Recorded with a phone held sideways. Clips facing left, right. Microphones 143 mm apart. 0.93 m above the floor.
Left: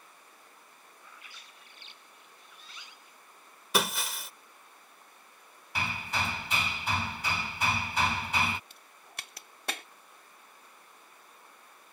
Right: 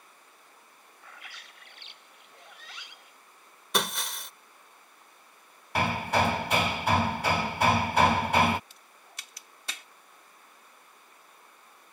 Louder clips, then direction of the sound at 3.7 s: Left 1 dB; 5° left (ahead or behind).